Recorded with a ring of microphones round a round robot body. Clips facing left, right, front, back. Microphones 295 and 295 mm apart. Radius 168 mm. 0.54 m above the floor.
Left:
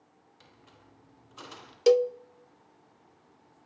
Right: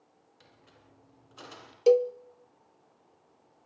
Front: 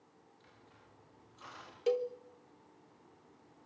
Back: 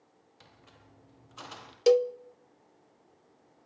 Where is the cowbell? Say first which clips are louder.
Even, back 10 dB; 150° left, 0.5 m.